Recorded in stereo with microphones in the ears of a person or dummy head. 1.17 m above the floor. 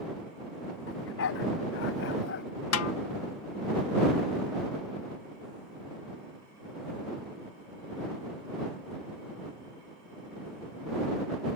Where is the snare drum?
80° left.